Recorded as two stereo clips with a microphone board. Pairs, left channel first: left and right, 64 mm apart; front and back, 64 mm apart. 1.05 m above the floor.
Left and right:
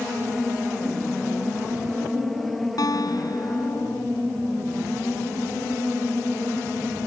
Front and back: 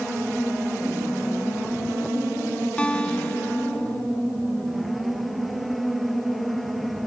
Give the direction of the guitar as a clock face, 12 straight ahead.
10 o'clock.